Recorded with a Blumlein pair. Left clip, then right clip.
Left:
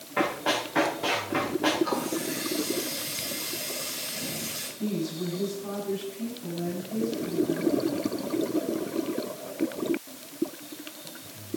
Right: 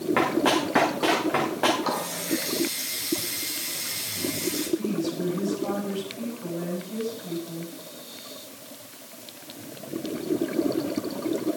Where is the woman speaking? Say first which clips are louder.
Right 4 dB; 55° right, 6.5 m.